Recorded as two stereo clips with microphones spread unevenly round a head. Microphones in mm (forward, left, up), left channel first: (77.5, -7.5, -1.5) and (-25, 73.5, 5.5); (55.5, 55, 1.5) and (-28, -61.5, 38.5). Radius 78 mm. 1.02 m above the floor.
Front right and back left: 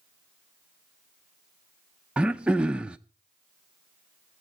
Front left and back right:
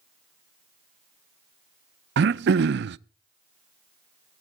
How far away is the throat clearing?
About 0.5 m.